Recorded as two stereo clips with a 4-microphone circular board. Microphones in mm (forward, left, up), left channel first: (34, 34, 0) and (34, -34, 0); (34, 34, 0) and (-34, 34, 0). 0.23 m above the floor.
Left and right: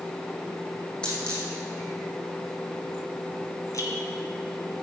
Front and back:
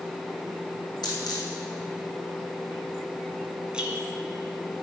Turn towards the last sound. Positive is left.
turn(degrees=105)